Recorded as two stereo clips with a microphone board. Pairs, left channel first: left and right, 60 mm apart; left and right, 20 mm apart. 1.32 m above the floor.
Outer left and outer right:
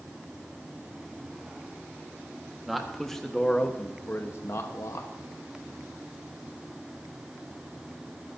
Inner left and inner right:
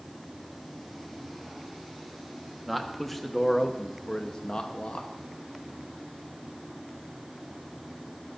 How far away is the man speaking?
About 1.5 m.